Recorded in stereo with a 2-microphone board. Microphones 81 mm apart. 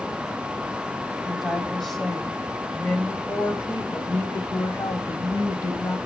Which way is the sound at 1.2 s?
5° right (ahead or behind).